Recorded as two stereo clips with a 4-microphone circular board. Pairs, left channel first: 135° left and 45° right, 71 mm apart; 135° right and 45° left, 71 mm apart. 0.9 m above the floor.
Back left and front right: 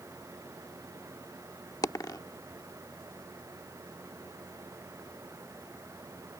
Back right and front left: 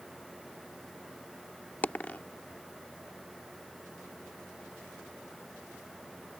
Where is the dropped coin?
160° left.